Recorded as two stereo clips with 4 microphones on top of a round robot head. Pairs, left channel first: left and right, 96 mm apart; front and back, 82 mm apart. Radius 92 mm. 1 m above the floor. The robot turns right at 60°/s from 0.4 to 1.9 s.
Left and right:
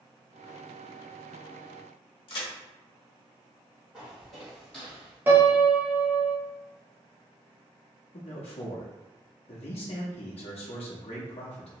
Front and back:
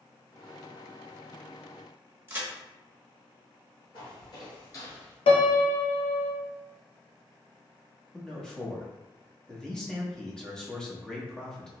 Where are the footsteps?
Straight ahead, 1.3 m; by 5.2 s 30° left, 1.0 m.